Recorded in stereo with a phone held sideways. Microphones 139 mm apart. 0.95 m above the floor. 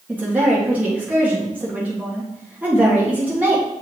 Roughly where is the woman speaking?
Centre.